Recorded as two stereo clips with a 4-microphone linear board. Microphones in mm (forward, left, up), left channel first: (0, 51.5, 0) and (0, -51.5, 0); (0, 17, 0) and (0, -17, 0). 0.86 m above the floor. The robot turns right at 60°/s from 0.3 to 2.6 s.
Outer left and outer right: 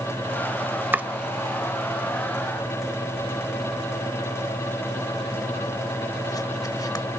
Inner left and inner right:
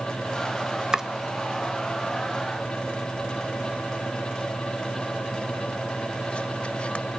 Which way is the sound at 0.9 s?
20° right (ahead or behind).